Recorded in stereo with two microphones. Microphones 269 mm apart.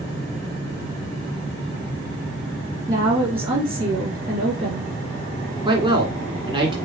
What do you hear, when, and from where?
2.9 s a woman speaking: 20° right (ahead or behind), 1.8 m
5.7 s a man speaking: 20° right (ahead or behind), 1.8 m